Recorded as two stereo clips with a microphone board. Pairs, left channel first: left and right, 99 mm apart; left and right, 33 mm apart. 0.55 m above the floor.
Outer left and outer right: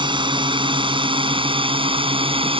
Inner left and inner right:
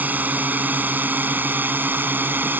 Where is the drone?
55° right (ahead or behind); by 2.6 s 70° right (ahead or behind).